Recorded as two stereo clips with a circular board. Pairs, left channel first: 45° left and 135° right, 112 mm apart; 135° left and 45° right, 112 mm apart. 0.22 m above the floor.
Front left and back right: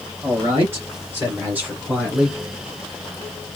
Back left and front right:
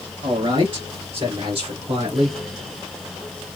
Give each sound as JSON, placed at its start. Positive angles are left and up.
{"t": 0.2, "sound": "a man speaking", "azimuth_deg": -80, "distance_m": 3.0}